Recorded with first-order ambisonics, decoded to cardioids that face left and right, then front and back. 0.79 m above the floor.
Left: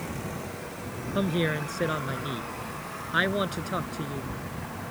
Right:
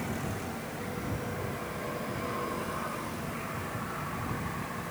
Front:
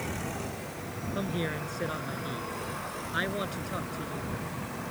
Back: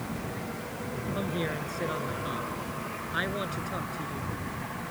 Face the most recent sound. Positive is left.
turn(degrees=90)